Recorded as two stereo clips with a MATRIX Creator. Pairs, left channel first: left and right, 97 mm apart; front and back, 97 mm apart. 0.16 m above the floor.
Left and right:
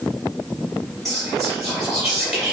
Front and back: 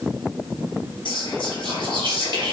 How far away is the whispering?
About 1.7 m.